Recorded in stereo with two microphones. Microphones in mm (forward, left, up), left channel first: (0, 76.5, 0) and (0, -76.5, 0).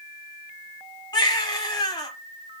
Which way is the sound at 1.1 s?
25° left (ahead or behind).